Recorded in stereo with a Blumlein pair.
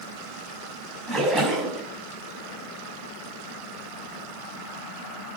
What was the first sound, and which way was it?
A splash, 15° right.